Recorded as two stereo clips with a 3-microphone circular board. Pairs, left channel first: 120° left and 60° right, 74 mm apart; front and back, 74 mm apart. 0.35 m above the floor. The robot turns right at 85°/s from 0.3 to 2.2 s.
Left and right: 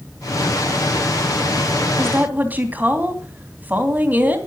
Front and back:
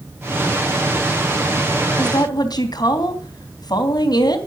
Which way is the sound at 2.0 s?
15° right.